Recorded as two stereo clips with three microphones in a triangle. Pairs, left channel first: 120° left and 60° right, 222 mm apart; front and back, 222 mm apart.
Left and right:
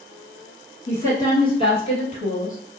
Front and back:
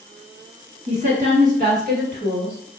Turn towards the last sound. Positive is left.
turn(degrees=160)